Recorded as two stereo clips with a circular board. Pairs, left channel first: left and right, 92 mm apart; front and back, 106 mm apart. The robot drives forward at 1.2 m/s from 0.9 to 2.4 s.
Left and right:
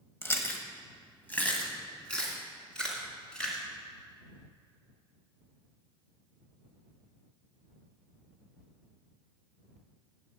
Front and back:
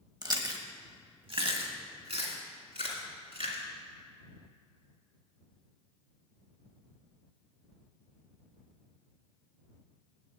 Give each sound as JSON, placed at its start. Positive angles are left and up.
{"t": 0.2, "sound": "chewing", "azimuth_deg": 145, "distance_m": 1.1}